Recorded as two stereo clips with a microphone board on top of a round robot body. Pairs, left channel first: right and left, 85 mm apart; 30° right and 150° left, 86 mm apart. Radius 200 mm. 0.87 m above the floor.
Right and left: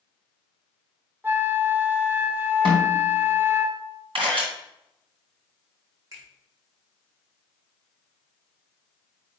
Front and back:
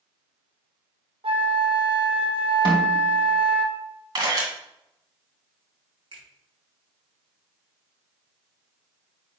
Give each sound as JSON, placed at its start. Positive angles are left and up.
{"t": 1.2, "sound": "a flute", "azimuth_deg": 160, "distance_m": 1.1}
{"t": 2.6, "sound": "a snare drum", "azimuth_deg": 120, "distance_m": 2.5}
{"t": 4.2, "sound": "a camera shutter", "azimuth_deg": 110, "distance_m": 3.0}
{"t": 6.1, "sound": "a finger snap", "azimuth_deg": 140, "distance_m": 3.5}